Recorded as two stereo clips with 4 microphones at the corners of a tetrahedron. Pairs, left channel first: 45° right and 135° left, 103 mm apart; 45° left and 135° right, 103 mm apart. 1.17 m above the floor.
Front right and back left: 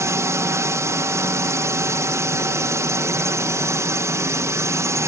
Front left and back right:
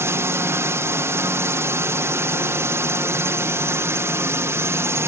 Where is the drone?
175° left.